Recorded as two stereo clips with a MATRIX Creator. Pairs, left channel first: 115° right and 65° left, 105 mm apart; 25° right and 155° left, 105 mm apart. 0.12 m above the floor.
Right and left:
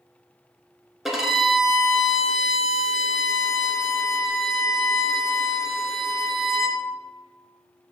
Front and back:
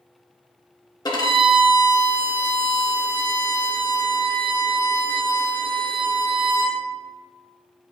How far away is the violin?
About 0.8 m.